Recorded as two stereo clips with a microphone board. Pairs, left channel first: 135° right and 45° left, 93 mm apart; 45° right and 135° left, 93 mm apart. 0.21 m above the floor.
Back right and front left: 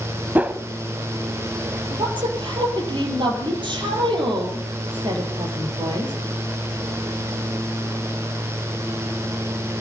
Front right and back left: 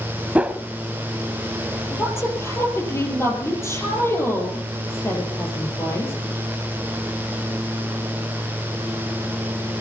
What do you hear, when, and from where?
0.3 s a whoosh: 85° left, 0.9 m
1.9 s a woman speaking: 15° left, 5 m